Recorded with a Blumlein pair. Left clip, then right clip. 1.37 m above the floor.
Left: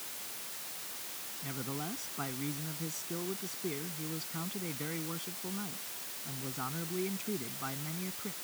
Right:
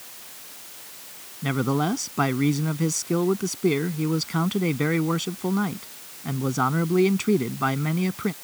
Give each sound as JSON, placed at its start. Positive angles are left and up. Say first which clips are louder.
{"t": 1.4, "sound": "a man speaking", "louder": "right 17 dB", "azimuth_deg": -35}